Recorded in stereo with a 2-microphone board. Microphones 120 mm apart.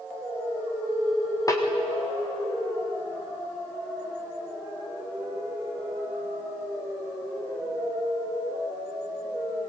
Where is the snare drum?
30° left (ahead or behind), 4 m.